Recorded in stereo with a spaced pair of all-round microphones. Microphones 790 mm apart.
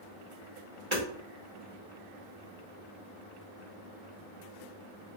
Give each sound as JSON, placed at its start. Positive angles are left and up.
{"t": 0.9, "sound": "hammering", "side_deg": -35, "distance_m": 1.1}